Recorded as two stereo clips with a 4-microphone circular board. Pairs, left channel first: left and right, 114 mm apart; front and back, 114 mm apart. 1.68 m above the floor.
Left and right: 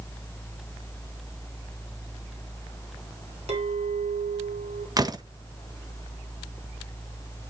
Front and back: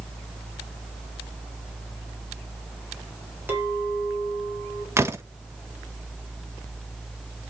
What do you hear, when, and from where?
3.5 s a clink: 110° right, 2.5 m
5.0 s a door slam: 125° right, 0.8 m